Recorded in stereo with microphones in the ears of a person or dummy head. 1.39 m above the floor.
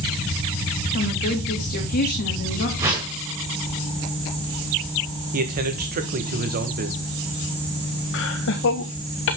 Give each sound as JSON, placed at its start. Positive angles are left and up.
{"t": 0.9, "sound": "a woman speaking", "side_deg": 45, "distance_m": 2.5}
{"t": 2.8, "sound": "a whoosh", "side_deg": -15, "distance_m": 2.0}
{"t": 5.3, "sound": "a man speaking", "side_deg": -45, "distance_m": 1.4}
{"t": 8.1, "sound": "laughter", "side_deg": 65, "distance_m": 1.5}